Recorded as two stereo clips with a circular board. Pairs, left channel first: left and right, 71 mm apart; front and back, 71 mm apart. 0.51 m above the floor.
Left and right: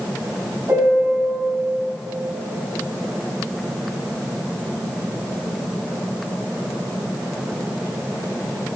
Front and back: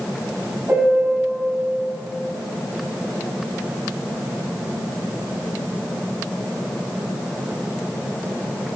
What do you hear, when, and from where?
0.7 s a piano: 130° right, 3 m